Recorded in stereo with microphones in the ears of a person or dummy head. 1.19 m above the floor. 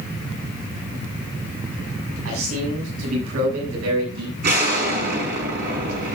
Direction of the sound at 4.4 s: 60° right (ahead or behind).